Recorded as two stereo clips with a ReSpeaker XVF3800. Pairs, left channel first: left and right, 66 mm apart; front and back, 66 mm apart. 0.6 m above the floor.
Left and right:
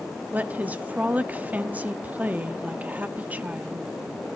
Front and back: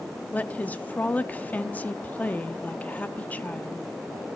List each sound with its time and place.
0.3 s a woman speaking: 45° right, 0.7 m